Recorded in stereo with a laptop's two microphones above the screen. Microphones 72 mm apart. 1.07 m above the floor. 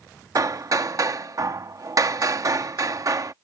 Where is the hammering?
45° right (ahead or behind).